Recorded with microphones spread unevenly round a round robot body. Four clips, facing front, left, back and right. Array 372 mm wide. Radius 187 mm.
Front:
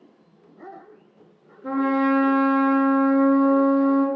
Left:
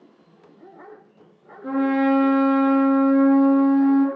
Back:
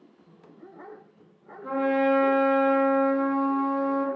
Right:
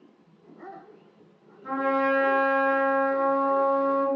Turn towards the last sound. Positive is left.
turn(degrees=55)